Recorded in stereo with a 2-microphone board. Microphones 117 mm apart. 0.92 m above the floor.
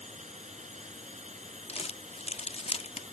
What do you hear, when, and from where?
0.0 s a drone: 85° right
1.7 s crumpling: 60° left (ahead or behind)